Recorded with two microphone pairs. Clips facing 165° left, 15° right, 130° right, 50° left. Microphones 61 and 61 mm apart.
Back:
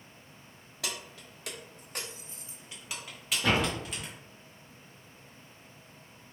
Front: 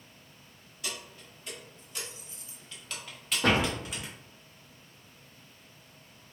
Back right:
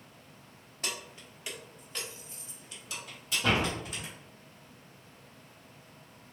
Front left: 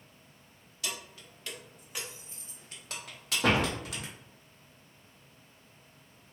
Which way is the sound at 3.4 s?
25° left.